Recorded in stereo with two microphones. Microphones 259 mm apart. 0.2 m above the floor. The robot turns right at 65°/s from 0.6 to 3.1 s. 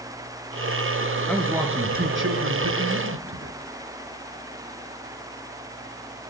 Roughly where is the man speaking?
Behind.